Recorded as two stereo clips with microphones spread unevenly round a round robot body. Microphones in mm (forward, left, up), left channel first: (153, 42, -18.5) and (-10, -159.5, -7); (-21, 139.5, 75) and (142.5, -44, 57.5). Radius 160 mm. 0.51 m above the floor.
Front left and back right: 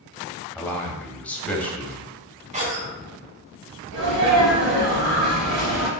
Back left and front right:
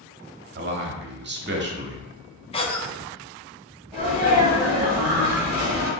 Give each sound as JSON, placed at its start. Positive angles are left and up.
{"t": 0.6, "sound": "a man speaking", "azimuth_deg": -30, "distance_m": 0.9}
{"t": 2.5, "sound": "a cough", "azimuth_deg": -175, "distance_m": 0.8}
{"t": 3.9, "sound": "a sneeze", "azimuth_deg": -140, "distance_m": 1.9}